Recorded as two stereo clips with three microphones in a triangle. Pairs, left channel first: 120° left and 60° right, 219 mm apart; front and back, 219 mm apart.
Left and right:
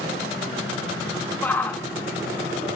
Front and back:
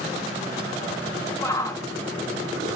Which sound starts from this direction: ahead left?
A shout, at 1.4 s.